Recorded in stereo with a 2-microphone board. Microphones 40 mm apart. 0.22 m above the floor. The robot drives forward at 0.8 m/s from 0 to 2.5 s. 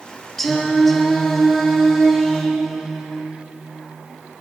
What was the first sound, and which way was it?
Singing, 10° left (ahead or behind).